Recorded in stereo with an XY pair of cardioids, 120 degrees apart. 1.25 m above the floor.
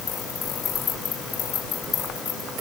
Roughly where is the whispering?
I don't hear whispering.